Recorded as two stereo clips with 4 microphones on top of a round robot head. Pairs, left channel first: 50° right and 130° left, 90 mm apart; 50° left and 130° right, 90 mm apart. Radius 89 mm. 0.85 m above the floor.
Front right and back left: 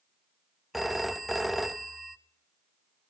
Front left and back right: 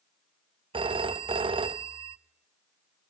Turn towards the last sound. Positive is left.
turn(degrees=-140)